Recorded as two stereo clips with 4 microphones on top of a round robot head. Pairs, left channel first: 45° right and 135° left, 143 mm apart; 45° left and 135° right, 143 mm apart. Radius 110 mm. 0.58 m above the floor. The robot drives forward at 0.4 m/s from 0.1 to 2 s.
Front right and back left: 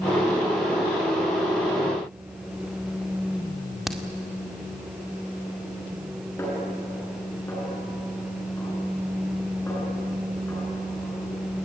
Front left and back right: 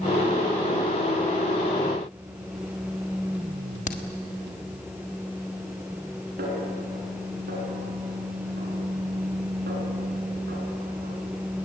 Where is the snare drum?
120° right, 7 m.